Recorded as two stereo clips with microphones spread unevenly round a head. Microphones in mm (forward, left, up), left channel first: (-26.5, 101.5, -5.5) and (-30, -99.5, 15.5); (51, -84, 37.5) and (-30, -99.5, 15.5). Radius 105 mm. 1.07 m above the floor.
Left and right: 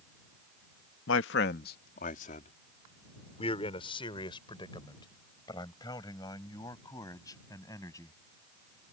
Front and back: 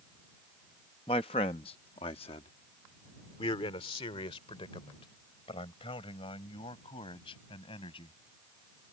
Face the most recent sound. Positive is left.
turn(degrees=15)